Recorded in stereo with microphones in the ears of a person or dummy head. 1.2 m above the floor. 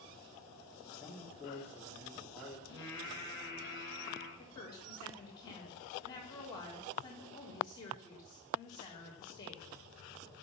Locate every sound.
0.8 s a man speaking: 10° left (ahead or behind), 2.5 m
2.7 s singing: 20° left (ahead or behind), 5.5 m
4.4 s a woman speaking: 20° left (ahead or behind), 3.5 m